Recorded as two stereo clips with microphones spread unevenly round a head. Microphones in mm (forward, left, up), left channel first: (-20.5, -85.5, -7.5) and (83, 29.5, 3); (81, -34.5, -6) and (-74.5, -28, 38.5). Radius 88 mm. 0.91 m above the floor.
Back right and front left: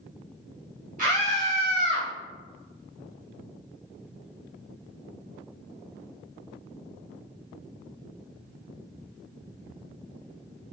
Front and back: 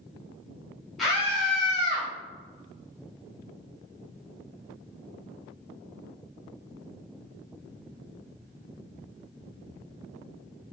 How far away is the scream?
About 1.2 m.